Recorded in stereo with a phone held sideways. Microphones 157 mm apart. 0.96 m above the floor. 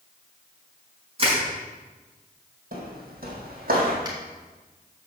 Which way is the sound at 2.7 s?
70° right (ahead or behind).